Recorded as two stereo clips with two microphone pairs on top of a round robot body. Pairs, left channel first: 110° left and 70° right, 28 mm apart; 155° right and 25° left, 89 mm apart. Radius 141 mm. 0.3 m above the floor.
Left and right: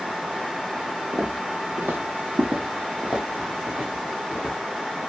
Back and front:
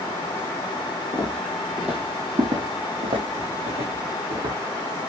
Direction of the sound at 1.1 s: 100° right.